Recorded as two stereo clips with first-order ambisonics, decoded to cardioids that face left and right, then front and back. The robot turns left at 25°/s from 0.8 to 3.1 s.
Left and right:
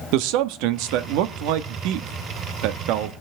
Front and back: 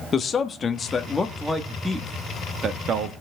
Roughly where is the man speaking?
Ahead right.